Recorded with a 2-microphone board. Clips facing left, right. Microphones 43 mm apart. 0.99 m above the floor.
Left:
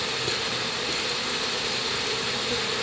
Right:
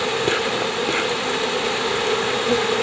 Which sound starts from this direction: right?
An insect, at 0.0 s.